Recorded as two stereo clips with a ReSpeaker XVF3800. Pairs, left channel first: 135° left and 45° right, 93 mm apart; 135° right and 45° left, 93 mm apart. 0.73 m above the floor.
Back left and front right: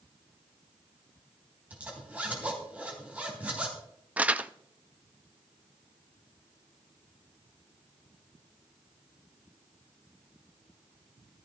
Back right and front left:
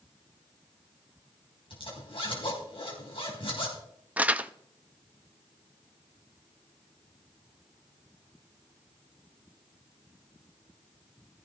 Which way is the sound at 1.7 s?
120° right.